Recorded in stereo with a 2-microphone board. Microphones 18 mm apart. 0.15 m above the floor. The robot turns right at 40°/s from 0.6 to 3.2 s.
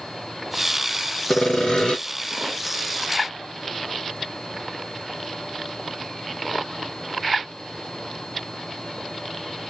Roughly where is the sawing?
Left.